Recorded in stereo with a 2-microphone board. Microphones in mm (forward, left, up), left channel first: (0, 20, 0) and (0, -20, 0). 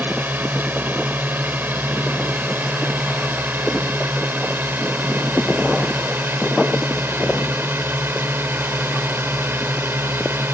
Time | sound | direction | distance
0.0 | a drone | 50° right (ahead or behind) | ?